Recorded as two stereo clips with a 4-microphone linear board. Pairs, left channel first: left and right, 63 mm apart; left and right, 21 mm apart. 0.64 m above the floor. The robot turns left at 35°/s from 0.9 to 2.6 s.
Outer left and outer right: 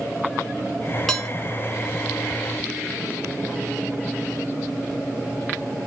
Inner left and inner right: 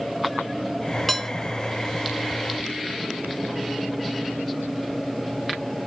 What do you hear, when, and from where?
1.1 s dishes clattering: 5° left (ahead or behind), 1.6 m; by 1.3 s 10° left (ahead or behind), 1.6 m